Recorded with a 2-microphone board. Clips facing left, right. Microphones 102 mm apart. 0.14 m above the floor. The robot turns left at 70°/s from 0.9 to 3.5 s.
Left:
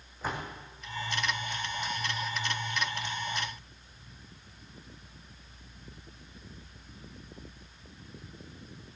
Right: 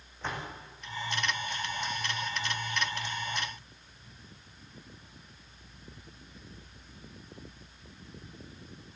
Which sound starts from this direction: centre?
A door slam, at 0.2 s.